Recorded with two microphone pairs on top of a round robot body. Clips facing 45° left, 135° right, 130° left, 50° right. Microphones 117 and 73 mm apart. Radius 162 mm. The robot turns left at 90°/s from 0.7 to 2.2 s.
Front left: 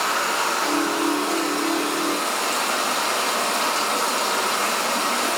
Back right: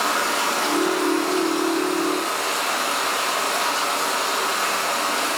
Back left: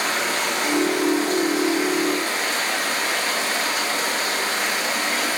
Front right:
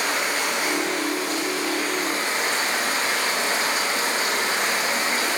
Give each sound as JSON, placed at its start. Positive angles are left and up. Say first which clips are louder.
{"t": 0.0, "sound": "running water", "louder": "back right 1 dB, back left 1 dB", "azimuth_deg": 155, "distance_m": 9.5}